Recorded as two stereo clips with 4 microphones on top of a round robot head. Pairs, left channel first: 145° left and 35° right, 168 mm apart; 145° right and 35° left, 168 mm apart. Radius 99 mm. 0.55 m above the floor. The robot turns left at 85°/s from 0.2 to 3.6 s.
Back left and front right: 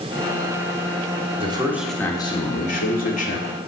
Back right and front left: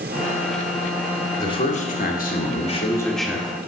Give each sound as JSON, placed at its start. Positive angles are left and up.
{"t": 1.4, "sound": "a man speaking", "azimuth_deg": -80, "distance_m": 1.7}